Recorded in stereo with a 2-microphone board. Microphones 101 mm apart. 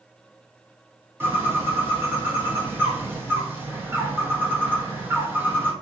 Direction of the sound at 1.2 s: 20° right (ahead or behind).